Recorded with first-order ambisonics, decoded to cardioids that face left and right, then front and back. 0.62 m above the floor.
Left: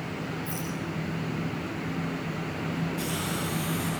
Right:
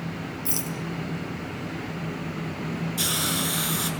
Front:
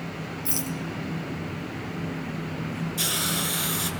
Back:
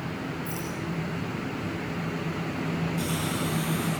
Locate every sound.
0.5 s a rattle: 50° right, 4.5 m
3.0 s a hiss: 50° right, 6.5 m